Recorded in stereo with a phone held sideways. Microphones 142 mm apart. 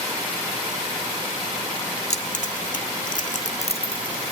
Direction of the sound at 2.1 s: 65° left (ahead or behind).